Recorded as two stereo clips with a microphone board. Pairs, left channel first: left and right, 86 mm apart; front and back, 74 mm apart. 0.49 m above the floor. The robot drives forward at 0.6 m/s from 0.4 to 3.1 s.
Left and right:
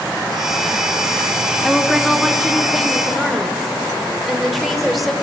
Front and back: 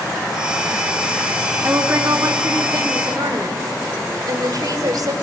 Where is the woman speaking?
175° right, 1.3 m; by 5.1 s straight behind, 1.9 m.